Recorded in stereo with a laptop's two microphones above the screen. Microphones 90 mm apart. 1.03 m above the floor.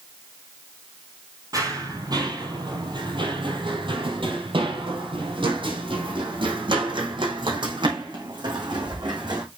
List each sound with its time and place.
1.5 s running footsteps: 40° right (ahead or behind), 2 m; by 9.4 s 55° right (ahead or behind), 4.5 m